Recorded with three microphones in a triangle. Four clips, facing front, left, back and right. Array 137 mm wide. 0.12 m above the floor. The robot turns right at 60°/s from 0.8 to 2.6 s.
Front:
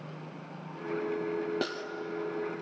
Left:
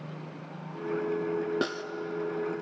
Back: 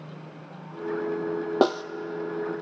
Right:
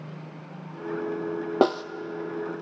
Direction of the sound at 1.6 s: 135° right.